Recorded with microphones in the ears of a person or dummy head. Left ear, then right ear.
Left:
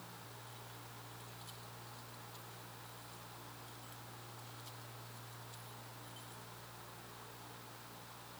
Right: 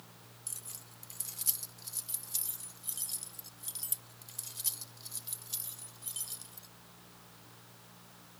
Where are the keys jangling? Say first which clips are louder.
Right 3 dB; 55° right (ahead or behind); by 6.7 s 80° right.